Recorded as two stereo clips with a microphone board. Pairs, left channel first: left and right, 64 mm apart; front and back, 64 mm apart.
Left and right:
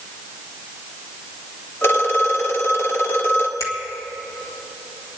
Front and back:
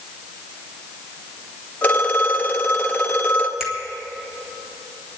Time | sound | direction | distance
1.8 | a phone ringing | 60° left | 1.5 m
3.6 | a finger snap | 95° left | 2.5 m